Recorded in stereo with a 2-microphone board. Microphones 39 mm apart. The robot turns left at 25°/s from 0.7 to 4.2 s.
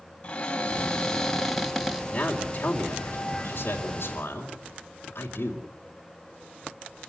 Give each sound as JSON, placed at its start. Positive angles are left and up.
{"t": 0.2, "sound": "a cupboard door", "azimuth_deg": 25, "distance_m": 2.0}
{"t": 2.1, "sound": "a man speaking", "azimuth_deg": 160, "distance_m": 3.0}